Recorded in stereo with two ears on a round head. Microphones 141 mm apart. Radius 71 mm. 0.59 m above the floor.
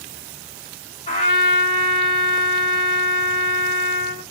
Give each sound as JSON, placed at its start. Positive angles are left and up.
{"t": 1.1, "sound": "a trumpet", "side_deg": 40, "distance_m": 2.5}